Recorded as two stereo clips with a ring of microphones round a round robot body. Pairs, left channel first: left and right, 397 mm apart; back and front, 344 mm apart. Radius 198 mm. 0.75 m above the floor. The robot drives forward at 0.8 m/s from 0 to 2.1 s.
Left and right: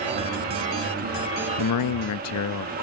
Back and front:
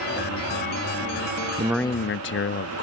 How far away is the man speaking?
About 0.5 m.